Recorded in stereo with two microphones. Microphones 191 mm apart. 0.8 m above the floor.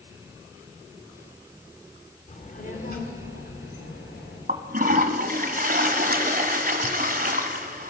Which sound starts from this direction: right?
A toilet flushing, at 4.5 s.